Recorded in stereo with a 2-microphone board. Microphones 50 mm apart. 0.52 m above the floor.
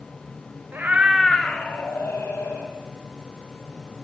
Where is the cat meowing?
45° right (ahead or behind), 0.6 m; by 2.7 s 55° left (ahead or behind), 1.6 m.